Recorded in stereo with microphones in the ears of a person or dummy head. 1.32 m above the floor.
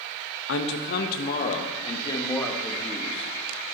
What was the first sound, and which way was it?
A man speaking, 70° left (ahead or behind).